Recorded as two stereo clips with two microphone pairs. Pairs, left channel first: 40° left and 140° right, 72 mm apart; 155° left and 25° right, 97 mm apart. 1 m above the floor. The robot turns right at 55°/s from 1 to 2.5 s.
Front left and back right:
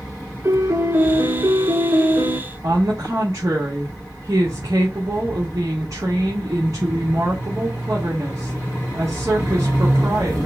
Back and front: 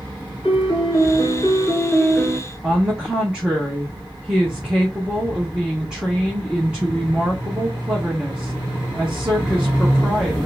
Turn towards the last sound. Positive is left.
turn(degrees=-100)